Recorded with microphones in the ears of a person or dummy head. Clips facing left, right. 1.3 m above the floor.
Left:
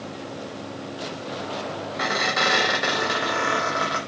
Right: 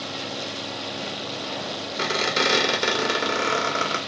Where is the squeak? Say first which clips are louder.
Right 1 dB; 45° right (ahead or behind), 2.5 m.